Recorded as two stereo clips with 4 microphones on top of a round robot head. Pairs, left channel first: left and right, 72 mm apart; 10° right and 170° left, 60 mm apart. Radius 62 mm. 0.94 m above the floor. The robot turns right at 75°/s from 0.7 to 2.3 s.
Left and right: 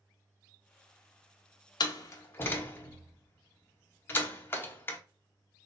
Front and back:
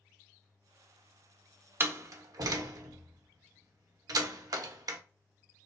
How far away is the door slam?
About 0.6 m.